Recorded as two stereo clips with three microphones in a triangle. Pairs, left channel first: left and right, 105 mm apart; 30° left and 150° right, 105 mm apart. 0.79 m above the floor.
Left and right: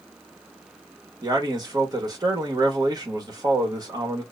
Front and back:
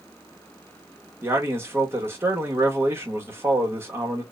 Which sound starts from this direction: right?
A man speaking, at 1.2 s.